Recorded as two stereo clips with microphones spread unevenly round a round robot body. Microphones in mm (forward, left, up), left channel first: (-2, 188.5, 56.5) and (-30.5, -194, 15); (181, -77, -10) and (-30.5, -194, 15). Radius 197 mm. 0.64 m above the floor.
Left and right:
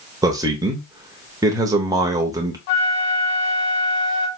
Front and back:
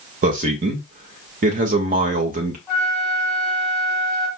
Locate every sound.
0.2 s a man speaking: 150° right, 0.9 m
2.7 s a flute: 115° left, 0.9 m